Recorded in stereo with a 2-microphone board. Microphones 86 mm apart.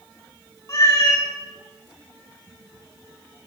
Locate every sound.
0.7 s a cat meowing: 35° left (ahead or behind), 2 m